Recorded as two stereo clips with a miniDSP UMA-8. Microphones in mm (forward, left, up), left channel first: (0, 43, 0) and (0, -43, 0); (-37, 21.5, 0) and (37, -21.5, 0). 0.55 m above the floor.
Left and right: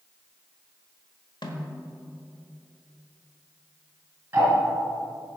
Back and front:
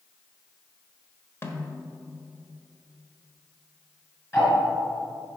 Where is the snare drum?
90° left, 1.4 m.